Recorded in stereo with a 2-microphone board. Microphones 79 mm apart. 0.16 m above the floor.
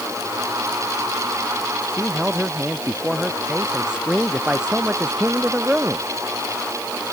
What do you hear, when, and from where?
1.9 s a man speaking: 10° right (ahead or behind)